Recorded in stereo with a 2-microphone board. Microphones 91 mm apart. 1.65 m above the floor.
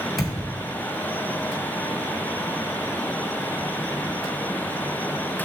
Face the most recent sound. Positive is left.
turn(degrees=0)  # may be behind; listen again after turning